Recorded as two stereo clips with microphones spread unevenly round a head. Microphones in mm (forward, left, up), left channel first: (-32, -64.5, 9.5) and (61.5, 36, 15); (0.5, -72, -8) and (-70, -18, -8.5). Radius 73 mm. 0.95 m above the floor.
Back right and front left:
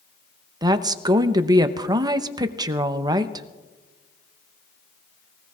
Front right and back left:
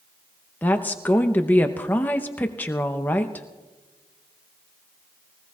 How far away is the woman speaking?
About 0.7 m.